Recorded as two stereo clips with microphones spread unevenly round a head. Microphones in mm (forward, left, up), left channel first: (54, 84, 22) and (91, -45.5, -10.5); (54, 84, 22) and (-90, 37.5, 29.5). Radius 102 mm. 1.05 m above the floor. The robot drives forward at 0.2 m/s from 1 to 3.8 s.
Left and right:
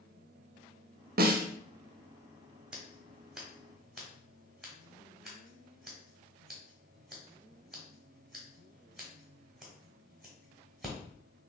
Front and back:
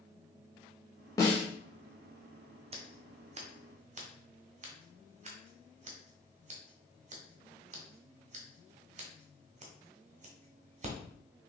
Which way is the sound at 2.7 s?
175° right.